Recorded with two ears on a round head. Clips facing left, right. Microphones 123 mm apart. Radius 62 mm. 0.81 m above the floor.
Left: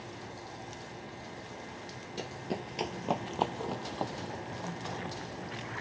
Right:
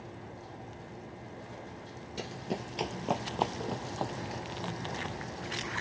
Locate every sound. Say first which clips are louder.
2.2 s running footsteps: even; centre (ahead or behind)